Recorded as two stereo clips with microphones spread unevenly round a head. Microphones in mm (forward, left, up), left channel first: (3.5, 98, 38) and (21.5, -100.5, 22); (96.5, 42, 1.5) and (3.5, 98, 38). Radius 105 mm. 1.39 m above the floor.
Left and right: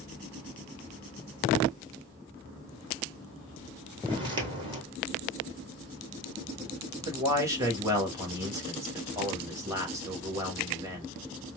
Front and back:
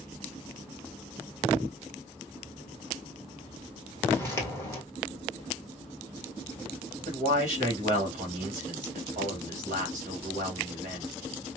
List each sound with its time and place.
4.1 s footsteps: 120° right, 1.4 m
7.0 s a man speaking: 160° right, 1.6 m